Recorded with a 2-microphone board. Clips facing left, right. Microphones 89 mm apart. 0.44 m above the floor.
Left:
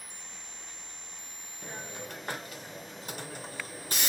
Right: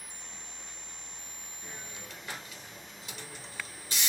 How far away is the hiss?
About 0.5 m.